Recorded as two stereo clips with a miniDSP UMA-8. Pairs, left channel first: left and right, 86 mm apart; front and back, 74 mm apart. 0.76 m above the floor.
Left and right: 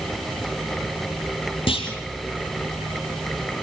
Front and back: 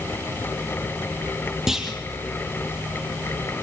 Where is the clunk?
95° left, 4 m.